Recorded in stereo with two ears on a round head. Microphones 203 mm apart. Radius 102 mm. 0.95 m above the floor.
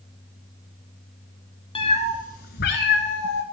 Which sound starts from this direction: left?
A cat meowing, at 1.8 s.